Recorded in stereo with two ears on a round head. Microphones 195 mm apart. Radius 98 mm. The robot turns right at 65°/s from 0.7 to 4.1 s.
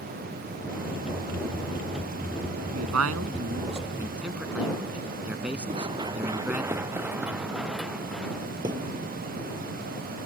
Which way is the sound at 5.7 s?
25° right (ahead or behind).